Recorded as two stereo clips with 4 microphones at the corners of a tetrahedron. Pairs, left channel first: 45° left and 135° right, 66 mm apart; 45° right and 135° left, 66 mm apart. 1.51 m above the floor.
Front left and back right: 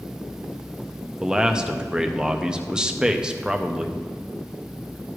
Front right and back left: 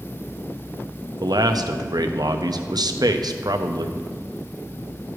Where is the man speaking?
145° left, 0.7 m.